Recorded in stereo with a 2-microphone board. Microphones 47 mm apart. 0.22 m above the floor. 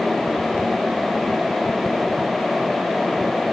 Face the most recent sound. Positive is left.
No sound to turn to.